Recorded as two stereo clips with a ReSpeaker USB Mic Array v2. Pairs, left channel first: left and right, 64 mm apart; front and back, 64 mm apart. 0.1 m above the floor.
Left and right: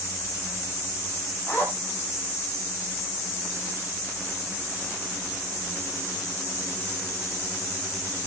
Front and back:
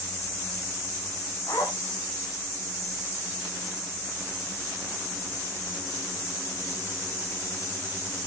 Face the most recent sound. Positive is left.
turn(degrees=25)